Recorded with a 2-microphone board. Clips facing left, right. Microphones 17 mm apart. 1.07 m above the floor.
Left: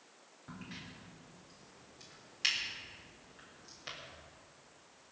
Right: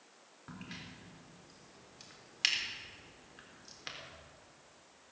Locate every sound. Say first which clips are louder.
0.5 s a crack: even; 35° right (ahead or behind), 3.5 m